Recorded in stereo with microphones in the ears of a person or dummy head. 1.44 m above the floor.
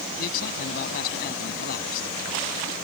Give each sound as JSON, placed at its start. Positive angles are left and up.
{"t": 0.2, "sound": "a man speaking", "side_deg": 55}